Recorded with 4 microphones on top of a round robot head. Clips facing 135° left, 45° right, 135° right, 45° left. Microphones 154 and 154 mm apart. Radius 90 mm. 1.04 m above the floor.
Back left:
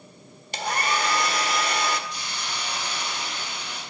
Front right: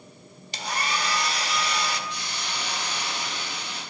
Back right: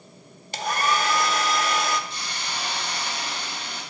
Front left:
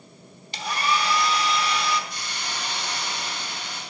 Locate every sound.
0.5 s a hair dryer: straight behind, 1.3 m
2.1 s a hiss: 70° right, 6.5 m